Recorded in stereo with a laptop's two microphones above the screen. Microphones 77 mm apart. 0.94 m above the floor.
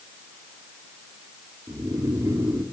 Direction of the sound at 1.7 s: 45° right (ahead or behind).